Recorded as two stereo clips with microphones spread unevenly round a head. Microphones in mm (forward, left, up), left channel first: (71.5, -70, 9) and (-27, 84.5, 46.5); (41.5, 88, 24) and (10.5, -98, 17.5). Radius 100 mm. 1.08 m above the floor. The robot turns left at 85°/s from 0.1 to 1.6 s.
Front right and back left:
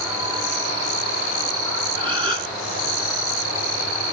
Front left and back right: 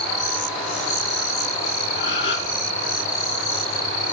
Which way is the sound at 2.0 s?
55° left.